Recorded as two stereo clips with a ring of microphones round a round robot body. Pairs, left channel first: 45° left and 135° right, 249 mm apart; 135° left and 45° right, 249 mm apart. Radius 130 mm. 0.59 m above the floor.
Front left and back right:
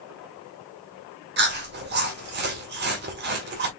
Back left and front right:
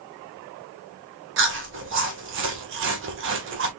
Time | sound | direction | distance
1.4 | chewing | 85° right | 1.9 m